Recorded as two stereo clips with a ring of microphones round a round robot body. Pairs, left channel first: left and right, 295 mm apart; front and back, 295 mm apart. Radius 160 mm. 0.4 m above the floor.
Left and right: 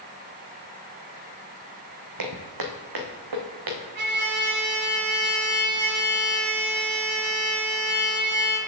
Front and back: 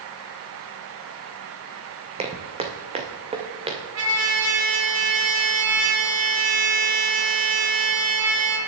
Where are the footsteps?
110° right, 1.4 m.